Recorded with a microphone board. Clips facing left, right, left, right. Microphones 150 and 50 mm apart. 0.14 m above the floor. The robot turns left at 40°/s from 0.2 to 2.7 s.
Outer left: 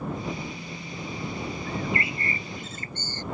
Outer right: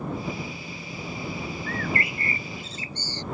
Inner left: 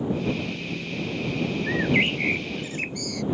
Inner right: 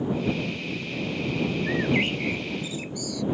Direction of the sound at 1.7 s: 170° left.